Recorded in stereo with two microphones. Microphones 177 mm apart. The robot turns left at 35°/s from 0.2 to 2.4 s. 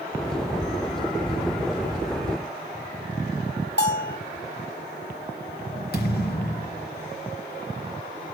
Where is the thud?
65° left (ahead or behind), 3.5 m.